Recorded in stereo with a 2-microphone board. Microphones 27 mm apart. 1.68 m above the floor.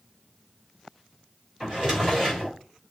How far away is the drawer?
About 3.5 m.